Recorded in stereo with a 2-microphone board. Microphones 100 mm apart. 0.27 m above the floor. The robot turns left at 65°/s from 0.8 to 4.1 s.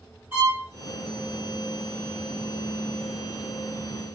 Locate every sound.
0.3 s a violin: 20° right (ahead or behind), 2.0 m